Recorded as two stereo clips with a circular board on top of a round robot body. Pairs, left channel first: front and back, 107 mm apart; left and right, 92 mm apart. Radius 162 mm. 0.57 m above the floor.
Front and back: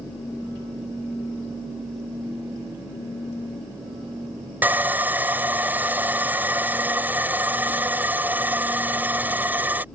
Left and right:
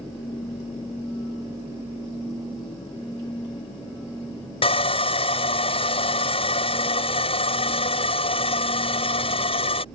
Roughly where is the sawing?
Left.